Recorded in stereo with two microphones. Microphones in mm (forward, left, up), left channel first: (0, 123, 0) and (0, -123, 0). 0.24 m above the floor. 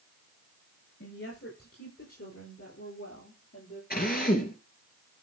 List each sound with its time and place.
1.0 s a woman speaking: 65° left (ahead or behind), 4 m; by 3.8 s 70° left (ahead or behind), 6 m
3.9 s a drill: 40° left (ahead or behind), 3 m